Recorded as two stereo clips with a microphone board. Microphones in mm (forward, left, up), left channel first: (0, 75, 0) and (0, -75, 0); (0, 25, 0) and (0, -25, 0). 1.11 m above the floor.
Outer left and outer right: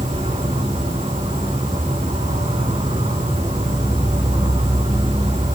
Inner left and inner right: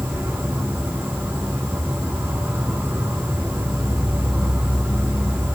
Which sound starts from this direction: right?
An insect, at 0.0 s.